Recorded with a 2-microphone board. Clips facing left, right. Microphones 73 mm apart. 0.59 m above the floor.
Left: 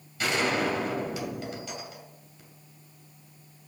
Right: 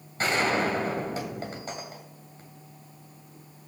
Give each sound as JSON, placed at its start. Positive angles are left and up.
{"t": 0.2, "sound": "a gunshot", "side_deg": -40, "distance_m": 2.5}